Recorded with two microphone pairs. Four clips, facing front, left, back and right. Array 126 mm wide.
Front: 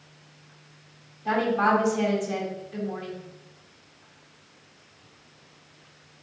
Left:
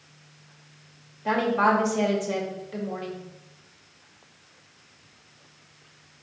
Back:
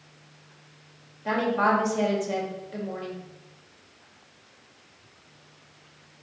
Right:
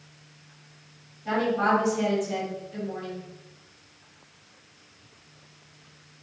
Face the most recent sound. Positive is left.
turn(degrees=120)